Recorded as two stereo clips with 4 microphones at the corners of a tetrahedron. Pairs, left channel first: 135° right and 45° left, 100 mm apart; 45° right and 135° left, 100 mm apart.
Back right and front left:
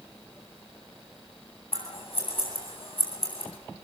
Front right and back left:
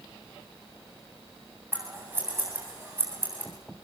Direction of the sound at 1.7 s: 160° right.